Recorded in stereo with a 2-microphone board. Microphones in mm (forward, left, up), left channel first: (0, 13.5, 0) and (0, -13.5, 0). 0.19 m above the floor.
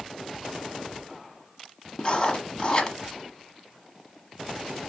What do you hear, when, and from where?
2.0 s writing: 30° left (ahead or behind), 1.0 m